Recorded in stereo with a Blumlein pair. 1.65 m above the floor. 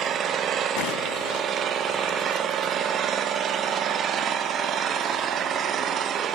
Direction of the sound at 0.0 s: 25° right.